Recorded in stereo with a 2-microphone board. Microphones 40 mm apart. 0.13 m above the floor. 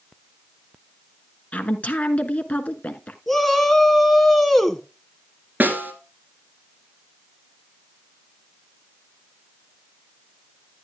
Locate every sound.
1.5 s a woman speaking: 35° left (ahead or behind), 1.3 m
3.3 s a shout: 5° left (ahead or behind), 1.2 m
5.6 s a snare drum: 45° right (ahead or behind), 2 m